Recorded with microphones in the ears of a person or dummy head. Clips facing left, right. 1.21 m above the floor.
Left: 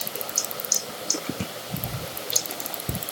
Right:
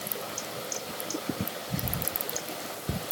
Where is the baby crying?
I don't hear a baby crying.